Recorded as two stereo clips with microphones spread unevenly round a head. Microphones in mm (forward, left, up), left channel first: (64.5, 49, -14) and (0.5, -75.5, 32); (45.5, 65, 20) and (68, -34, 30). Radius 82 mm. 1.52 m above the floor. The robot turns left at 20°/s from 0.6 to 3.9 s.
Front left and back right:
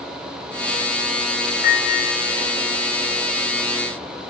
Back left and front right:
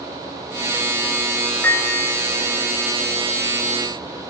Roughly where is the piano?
Ahead left.